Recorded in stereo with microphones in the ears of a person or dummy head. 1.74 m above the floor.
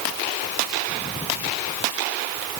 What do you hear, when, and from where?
Only background noise.